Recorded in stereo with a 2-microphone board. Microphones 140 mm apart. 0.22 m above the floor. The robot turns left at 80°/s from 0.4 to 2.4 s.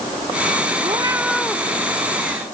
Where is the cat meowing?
135° right; by 1.6 s 155° left.